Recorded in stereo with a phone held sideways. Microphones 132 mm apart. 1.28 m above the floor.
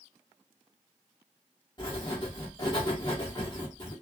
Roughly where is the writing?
Left.